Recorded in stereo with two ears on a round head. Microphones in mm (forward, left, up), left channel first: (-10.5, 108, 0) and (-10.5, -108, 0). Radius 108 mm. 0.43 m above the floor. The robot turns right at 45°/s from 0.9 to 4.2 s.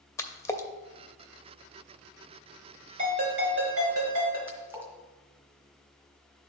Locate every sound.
0.2 s a splash: 10° left (ahead or behind), 0.6 m
3.0 s a ringtone: 150° right, 3.5 m; by 4.4 s 95° right, 3.5 m
4.5 s a splash: 10° right (ahead or behind), 1.9 m